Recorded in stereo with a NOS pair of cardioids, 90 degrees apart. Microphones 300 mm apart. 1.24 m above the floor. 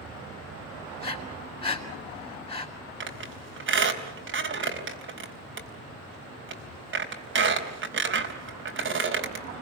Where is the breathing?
20° left, 6 m.